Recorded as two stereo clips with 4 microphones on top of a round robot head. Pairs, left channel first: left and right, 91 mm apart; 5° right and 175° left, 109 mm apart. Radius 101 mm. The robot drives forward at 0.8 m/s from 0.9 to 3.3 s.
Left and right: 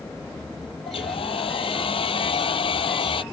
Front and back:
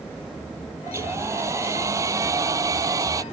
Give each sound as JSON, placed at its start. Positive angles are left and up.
{"t": 0.9, "sound": "a hair dryer", "azimuth_deg": 110}